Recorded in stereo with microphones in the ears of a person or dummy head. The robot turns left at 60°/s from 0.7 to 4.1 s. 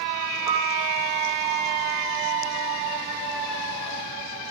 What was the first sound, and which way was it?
A piano, 10° right (ahead or behind).